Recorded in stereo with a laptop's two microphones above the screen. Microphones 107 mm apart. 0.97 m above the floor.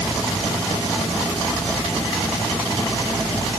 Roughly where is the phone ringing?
I don't hear a phone ringing.